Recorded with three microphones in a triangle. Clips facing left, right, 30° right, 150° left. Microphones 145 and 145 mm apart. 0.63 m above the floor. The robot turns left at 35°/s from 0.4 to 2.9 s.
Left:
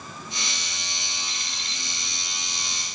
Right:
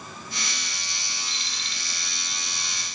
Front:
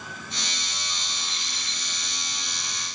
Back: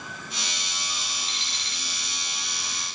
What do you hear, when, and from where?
1.3 s an alarm clock: 60° left, 4.5 m; by 1.8 s 40° left, 4.5 m